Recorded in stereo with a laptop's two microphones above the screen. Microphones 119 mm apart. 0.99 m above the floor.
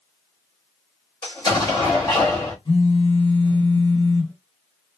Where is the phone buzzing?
40° left (ahead or behind), 0.9 m.